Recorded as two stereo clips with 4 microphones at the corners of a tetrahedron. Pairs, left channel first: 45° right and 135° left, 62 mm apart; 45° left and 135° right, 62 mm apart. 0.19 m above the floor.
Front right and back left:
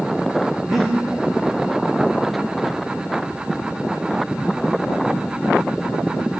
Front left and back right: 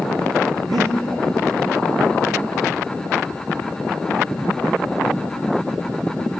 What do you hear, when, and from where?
0.7 s breathing: 135° right, 3.5 m